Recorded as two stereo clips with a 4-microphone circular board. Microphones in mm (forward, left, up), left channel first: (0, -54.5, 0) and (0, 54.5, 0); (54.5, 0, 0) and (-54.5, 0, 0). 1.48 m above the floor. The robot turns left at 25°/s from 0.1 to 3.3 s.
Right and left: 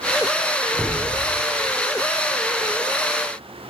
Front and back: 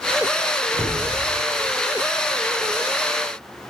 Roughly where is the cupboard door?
Behind.